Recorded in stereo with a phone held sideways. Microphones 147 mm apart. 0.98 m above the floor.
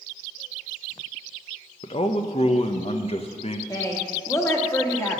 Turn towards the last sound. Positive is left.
turn(degrees=20)  # may be behind; listen again after turning